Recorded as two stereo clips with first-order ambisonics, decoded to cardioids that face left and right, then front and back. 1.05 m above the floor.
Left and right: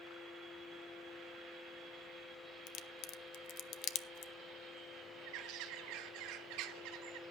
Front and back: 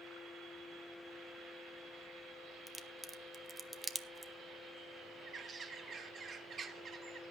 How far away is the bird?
About 1.4 m.